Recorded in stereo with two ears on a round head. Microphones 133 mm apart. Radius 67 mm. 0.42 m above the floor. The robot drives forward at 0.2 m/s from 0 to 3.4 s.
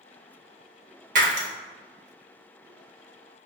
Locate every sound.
1.1 s breaking glass: 60° right (ahead or behind), 0.8 m